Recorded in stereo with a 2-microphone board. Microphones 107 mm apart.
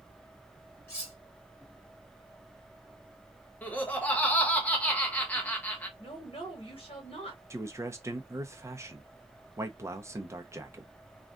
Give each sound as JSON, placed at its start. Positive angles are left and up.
{"t": 0.9, "sound": "cutlery clinking", "side_deg": 25, "distance_m": 2.5}
{"t": 3.6, "sound": "laughter", "side_deg": 15, "distance_m": 1.2}
{"t": 6.0, "sound": "a woman speaking", "side_deg": 60, "distance_m": 1.9}
{"t": 7.5, "sound": "a man speaking", "side_deg": -30, "distance_m": 0.7}